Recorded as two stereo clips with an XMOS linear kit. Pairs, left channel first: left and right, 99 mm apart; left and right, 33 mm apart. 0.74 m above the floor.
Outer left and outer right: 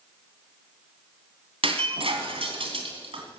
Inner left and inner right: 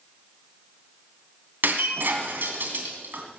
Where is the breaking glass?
70° right (ahead or behind), 2.5 m.